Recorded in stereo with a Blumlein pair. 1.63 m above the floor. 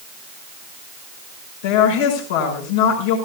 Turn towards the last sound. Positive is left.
turn(degrees=55)